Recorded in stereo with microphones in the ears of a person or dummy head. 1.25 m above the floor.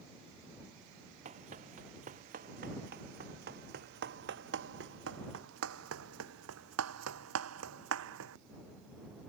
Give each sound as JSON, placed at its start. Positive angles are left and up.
{"t": 1.2, "sound": "running footsteps", "side_deg": -35}